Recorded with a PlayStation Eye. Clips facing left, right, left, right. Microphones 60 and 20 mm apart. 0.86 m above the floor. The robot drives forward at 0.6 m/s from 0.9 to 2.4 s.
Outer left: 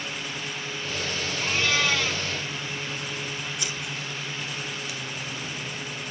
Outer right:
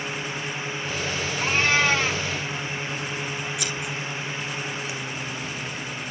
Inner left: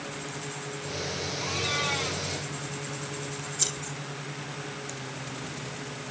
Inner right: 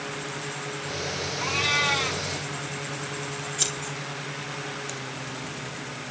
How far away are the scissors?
About 5.5 m.